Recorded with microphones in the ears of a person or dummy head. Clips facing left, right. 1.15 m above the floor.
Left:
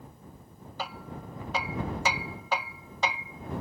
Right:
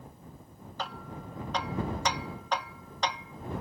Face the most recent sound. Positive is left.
turn(degrees=0)  # may be behind; listen again after turning